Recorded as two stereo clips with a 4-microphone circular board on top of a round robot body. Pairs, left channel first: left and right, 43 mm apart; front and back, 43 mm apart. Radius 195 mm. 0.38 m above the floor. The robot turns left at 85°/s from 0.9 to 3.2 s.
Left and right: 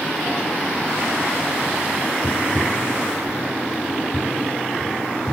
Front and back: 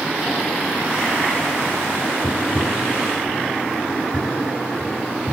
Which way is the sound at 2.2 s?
45° left.